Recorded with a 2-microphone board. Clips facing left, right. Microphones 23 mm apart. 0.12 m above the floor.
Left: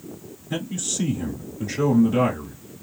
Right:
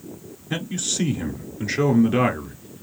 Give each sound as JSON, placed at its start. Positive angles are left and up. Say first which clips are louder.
{"t": 0.5, "sound": "a man speaking", "louder": "right 1 dB", "side_deg": -35, "distance_m": 1.5}